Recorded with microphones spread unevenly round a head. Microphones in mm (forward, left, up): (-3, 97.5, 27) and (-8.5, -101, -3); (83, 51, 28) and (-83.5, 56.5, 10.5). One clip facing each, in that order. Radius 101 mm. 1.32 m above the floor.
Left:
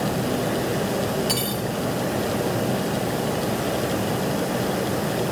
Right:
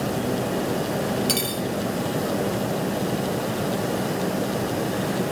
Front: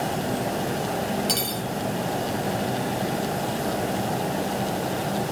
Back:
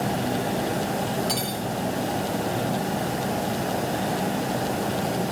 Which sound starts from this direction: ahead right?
Cutlery clinking, at 1.3 s.